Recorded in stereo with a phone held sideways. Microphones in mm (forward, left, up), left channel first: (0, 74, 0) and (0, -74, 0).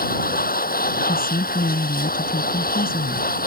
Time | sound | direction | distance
0.0 | a machine running | 80° left | ?
1.1 | a woman speaking | 85° left | ?